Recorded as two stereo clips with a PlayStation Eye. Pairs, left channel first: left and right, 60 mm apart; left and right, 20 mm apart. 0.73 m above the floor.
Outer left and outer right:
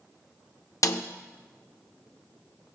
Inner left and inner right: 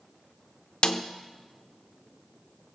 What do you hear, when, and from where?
0.8 s a snare drum: 60° left (ahead or behind), 0.7 m